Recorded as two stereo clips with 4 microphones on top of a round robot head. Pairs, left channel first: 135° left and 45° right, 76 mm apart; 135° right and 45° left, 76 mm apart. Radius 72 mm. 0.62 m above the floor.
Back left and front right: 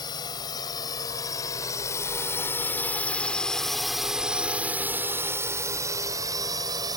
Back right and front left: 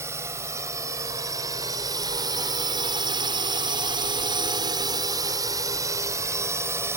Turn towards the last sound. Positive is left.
turn(degrees=-10)